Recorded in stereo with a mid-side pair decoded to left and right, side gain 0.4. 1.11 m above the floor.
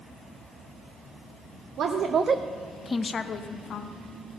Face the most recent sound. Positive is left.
turn(degrees=70)